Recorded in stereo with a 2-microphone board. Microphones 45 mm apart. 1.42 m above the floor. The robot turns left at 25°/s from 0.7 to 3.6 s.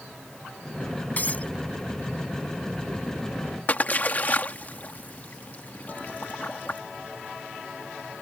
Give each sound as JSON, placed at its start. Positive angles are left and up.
{"t": 1.2, "sound": "breaking glass", "side_deg": 40}
{"t": 3.7, "sound": "a splash", "side_deg": 40}